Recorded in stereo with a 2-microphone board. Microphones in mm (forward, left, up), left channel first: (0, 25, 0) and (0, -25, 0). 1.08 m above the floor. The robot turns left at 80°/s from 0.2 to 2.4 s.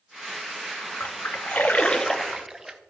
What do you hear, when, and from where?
1.0 s a splash: 45° left (ahead or behind), 0.5 m; by 2.8 s 5° right (ahead or behind), 0.5 m